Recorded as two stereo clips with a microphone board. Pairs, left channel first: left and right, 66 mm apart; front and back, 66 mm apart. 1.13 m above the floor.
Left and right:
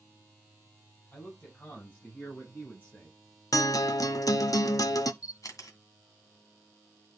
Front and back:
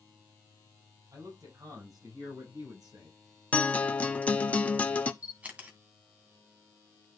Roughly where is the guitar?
Ahead left.